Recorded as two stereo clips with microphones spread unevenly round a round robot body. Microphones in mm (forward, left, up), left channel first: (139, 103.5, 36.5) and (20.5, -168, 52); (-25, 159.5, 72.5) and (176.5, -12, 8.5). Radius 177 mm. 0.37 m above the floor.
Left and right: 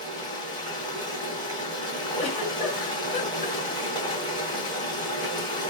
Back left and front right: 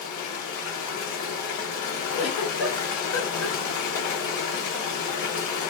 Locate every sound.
0.0 s running water: 140° left, 1.3 m
2.2 s a giggle: 115° left, 1.8 m